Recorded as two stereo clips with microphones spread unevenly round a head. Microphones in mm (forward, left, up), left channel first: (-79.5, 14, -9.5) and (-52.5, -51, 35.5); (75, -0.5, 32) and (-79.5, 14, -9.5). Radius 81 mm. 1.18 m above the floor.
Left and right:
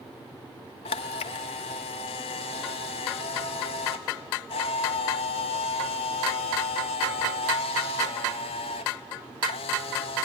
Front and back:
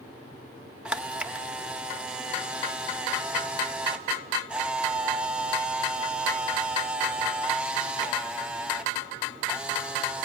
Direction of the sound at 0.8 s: 80° left.